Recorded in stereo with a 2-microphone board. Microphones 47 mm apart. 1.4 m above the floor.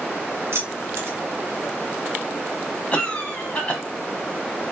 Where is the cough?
35° left (ahead or behind), 1.0 m.